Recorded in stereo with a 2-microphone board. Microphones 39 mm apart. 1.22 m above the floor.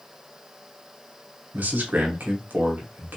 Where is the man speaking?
50° right (ahead or behind), 1.1 m.